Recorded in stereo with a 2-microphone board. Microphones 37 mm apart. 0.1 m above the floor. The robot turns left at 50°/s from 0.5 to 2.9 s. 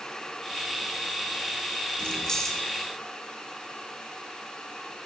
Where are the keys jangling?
30° left, 3.5 m; by 2.6 s straight ahead, 3.5 m.